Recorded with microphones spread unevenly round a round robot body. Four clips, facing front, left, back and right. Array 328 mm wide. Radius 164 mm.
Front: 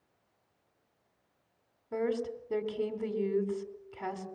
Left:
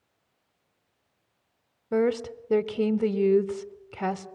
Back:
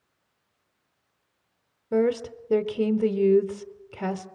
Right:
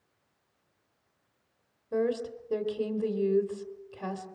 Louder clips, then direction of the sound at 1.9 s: Left 4 dB, back 9 dB; 135° left.